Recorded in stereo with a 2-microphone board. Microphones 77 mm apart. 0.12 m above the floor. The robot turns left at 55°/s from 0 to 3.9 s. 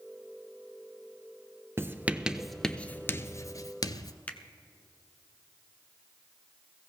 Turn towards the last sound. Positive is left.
turn(degrees=20)  # may be behind; listen again after turning